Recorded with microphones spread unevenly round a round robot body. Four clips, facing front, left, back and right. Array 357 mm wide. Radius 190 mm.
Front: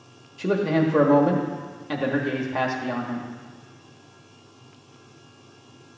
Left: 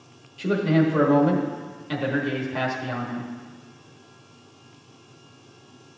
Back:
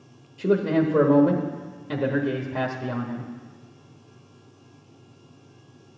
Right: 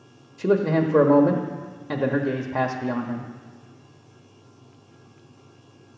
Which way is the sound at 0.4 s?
100° right.